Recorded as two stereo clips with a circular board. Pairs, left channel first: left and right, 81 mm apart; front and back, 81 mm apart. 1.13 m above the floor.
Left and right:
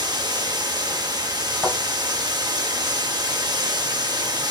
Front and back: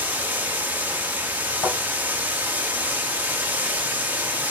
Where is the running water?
115° right, 1.0 m.